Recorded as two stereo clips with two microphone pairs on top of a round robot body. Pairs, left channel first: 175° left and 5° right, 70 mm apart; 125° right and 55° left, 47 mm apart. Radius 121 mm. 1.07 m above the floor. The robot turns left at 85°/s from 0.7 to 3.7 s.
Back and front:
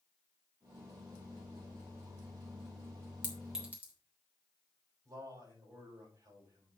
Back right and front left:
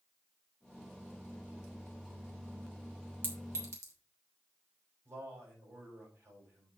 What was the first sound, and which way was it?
A clink, 105° left.